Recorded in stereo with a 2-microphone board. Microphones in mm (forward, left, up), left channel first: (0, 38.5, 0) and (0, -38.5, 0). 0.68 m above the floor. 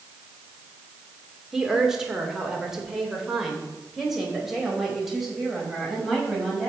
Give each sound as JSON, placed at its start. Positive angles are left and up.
{"t": 1.5, "sound": "a woman speaking", "side_deg": -5, "distance_m": 2.0}